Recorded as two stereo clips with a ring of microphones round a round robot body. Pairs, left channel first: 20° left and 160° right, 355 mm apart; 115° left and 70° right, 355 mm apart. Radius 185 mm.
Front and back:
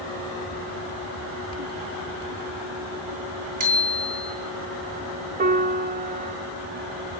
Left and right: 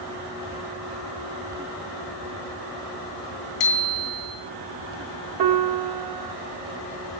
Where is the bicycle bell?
135° left, 3.5 m.